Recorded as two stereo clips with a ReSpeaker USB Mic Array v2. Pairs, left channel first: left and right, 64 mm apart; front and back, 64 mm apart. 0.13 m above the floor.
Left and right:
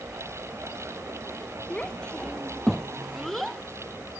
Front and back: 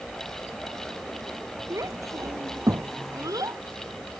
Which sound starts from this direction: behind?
A child speaking, at 1.7 s.